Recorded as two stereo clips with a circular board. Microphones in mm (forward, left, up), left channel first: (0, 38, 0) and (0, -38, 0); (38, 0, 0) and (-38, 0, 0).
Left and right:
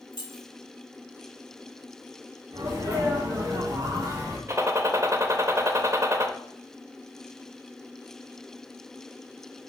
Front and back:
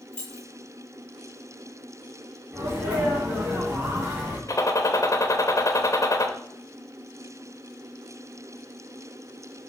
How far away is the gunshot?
About 0.8 m.